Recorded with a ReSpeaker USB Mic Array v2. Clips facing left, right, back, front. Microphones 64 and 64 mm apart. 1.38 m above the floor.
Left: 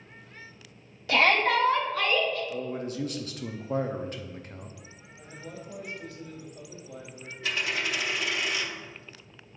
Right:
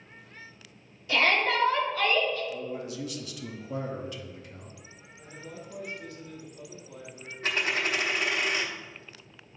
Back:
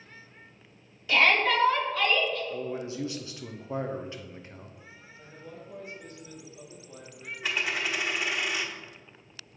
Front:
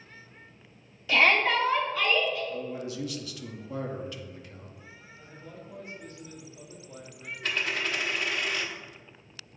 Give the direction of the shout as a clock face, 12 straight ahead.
9 o'clock.